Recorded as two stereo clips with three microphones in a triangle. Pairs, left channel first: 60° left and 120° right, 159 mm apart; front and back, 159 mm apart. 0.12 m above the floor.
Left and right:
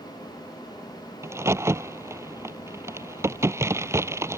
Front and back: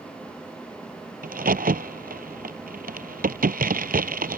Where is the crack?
170° left.